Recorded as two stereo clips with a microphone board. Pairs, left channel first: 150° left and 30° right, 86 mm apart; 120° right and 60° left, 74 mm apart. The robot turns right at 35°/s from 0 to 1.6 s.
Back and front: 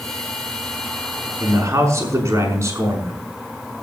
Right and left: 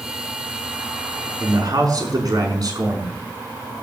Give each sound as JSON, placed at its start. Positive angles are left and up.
{"t": 1.4, "sound": "a man speaking", "azimuth_deg": 15, "distance_m": 5.5}